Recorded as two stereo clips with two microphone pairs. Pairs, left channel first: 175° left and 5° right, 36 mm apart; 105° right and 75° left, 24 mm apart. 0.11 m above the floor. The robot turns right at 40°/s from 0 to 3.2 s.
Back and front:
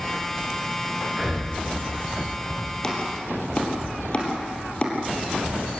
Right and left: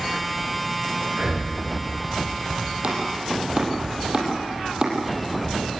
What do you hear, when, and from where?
1.1 s breathing: 70° left, 7.5 m; by 1.5 s 90° left, 7.5 m
2.8 s chopping: 110° left, 3.5 m; by 5.0 s 125° left, 3.5 m